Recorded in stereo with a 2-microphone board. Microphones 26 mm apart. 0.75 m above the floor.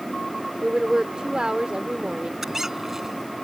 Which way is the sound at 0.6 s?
40° right (ahead or behind).